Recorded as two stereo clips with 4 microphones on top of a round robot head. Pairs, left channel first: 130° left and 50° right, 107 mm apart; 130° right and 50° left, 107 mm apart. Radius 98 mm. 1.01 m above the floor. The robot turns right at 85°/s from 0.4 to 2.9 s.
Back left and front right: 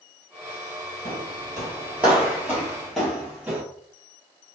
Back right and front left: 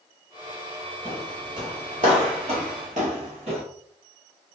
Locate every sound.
1.1 s footsteps: 20° right, 1.4 m; by 3.6 s 20° left, 1.5 m